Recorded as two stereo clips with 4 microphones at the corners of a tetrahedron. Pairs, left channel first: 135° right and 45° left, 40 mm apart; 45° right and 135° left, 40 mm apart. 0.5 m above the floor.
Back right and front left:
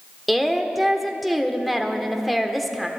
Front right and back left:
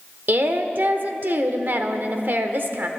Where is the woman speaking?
135° left, 1.1 m.